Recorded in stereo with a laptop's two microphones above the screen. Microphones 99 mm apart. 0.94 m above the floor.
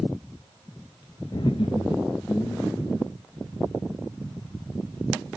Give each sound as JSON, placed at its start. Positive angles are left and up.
{"t": 1.3, "sound": "laughter", "side_deg": 45, "distance_m": 0.6}